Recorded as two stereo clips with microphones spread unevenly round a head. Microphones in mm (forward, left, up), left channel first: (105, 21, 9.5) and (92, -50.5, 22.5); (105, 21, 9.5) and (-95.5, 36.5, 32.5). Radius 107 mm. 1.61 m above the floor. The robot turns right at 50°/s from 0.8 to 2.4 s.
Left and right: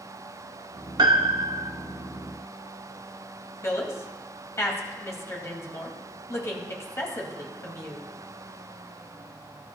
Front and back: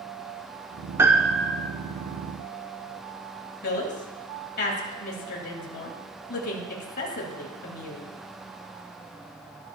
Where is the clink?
I don't hear a clink.